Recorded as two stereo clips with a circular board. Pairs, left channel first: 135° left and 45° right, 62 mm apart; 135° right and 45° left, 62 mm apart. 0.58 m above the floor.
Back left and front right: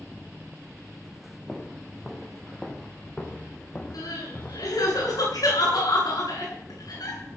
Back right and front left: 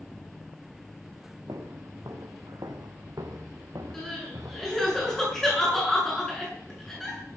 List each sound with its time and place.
1.5 s footsteps: 40° left, 2.5 m; by 4.8 s 75° left, 3.5 m
3.9 s crying: 145° left, 8.5 m